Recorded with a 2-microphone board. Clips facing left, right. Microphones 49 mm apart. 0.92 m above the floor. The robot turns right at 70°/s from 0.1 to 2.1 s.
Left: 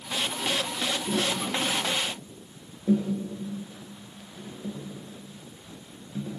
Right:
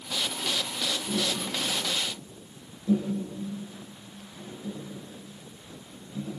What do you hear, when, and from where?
1.1 s tapping: 70° left (ahead or behind), 5.5 m; by 6.3 s 40° left (ahead or behind), 5.5 m